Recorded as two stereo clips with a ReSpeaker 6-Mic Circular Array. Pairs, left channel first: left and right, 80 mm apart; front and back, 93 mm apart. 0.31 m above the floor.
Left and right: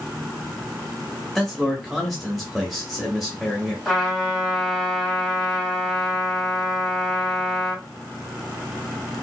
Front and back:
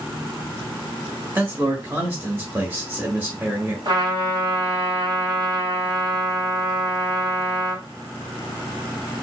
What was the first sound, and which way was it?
A man speaking, straight behind.